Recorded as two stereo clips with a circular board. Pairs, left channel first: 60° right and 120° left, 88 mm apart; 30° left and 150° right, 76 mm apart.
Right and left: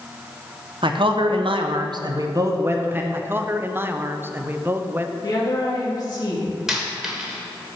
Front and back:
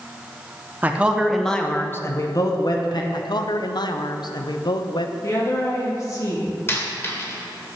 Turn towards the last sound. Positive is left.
turn(degrees=40)